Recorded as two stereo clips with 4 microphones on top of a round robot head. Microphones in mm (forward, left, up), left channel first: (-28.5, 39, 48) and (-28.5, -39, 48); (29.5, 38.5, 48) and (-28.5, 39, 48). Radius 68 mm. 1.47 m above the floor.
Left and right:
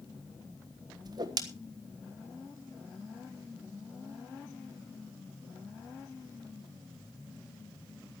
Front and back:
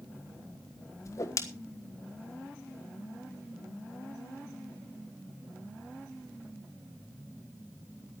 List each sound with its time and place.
1.1 s a whoosh: 45° right, 1.4 m